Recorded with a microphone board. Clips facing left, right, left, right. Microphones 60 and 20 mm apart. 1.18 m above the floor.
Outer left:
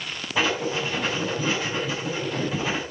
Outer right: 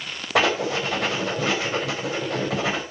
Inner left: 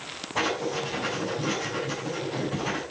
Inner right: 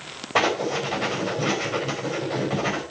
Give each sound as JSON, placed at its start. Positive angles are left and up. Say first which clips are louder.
{"t": 0.3, "sound": "writing", "louder": "outer right 3 dB, inner right 5 dB", "side_deg": -80, "distance_m": 4.0}